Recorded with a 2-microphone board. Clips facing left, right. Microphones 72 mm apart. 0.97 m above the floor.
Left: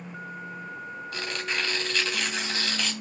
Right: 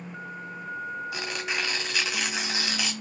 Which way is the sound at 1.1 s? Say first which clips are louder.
Left 4 dB; 10° right (ahead or behind).